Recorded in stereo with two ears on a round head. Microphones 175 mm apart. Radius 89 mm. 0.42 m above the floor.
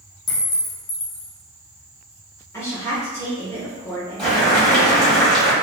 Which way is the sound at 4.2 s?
5° left (ahead or behind).